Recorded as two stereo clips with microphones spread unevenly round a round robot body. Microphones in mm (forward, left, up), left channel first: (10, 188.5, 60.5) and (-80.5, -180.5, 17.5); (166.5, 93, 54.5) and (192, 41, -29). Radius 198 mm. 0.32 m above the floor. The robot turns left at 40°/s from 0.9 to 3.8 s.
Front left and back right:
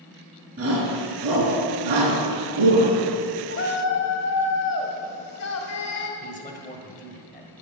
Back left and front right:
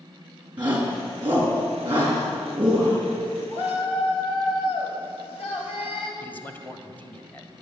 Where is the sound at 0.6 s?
40° right, 3.5 m; by 3.0 s 125° right, 3.5 m.